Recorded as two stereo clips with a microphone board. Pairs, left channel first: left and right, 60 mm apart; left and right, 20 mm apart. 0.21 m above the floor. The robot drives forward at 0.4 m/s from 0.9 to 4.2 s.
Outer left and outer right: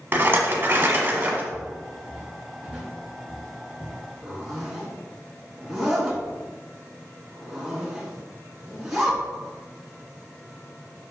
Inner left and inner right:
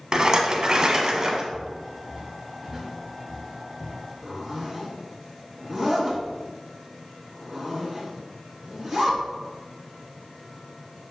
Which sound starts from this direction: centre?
A zipper, at 4.2 s.